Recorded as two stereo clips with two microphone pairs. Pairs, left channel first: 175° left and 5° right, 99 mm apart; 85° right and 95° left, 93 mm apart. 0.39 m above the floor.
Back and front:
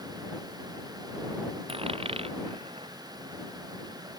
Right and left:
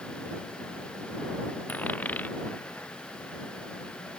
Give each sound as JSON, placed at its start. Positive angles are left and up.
{"t": 1.7, "sound": "a dropped coin", "azimuth_deg": -15}